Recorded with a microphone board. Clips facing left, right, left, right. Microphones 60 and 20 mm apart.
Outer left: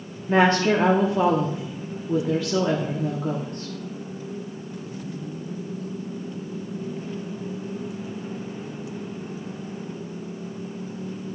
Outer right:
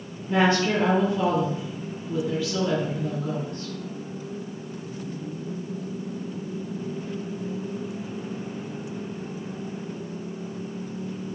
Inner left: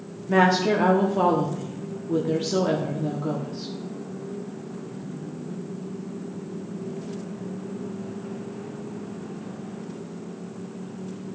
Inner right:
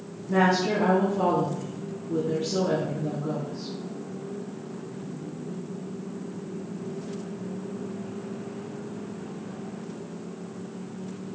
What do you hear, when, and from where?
0.3 s a woman speaking: 50° left (ahead or behind), 0.9 m